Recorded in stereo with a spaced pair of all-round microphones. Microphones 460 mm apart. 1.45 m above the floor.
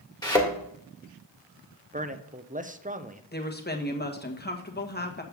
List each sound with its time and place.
0.2 s a thud: 10° left (ahead or behind), 1.9 m
1.9 s a man speaking: 20° right (ahead or behind), 0.8 m
3.3 s a woman speaking: 20° left (ahead or behind), 1.3 m